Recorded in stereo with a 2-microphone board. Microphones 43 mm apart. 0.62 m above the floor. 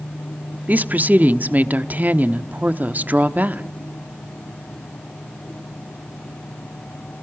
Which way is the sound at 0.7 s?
40° right (ahead or behind).